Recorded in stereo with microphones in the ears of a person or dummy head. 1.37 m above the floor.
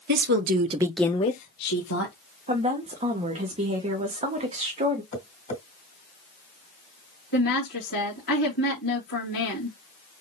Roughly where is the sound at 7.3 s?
Left.